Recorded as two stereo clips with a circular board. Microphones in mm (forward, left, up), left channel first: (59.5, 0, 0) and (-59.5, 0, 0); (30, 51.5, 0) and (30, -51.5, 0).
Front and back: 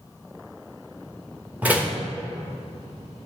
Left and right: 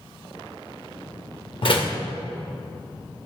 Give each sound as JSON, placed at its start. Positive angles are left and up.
{"t": 1.6, "sound": "a door slam", "azimuth_deg": 105, "distance_m": 1.0}